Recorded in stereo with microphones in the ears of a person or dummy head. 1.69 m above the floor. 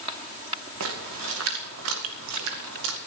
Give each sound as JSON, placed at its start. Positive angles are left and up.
{"t": 0.8, "sound": "a splash", "side_deg": -75, "distance_m": 2.0}